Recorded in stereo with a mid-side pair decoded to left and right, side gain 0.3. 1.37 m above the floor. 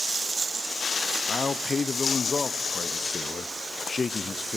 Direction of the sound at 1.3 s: 50° left.